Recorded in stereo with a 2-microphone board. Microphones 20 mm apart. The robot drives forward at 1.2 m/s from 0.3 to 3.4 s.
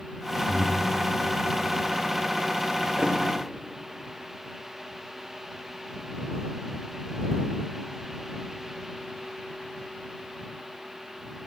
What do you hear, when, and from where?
0.5 s breathing: 30° left (ahead or behind), 2 m; by 0.9 s 25° left (ahead or behind), 2.5 m
3.0 s a thud: 35° right (ahead or behind), 2.5 m